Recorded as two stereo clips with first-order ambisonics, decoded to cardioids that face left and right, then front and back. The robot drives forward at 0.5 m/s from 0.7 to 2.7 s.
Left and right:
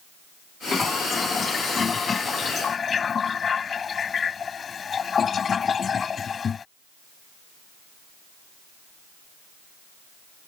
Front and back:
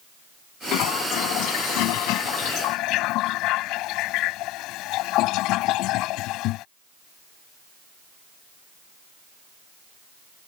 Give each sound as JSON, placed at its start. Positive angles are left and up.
{"t": 0.7, "sound": "a toilet flushing", "azimuth_deg": 15}